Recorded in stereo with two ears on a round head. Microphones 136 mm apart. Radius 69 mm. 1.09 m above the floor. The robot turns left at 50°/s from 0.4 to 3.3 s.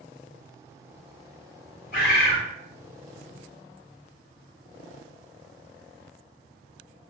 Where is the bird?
60° left (ahead or behind), 1.2 m; by 2.4 s 50° left (ahead or behind), 1.2 m.